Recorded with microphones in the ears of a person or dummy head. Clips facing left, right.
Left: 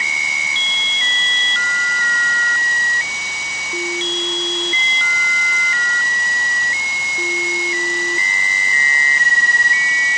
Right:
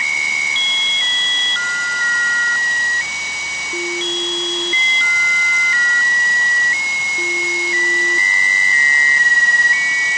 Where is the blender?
I don't hear a blender.